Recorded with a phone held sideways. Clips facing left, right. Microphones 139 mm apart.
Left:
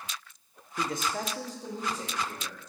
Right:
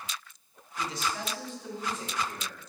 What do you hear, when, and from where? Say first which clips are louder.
0.8 s a man speaking: left 2 dB; 55° left (ahead or behind), 0.5 m; by 2.6 s 30° left (ahead or behind), 1.9 m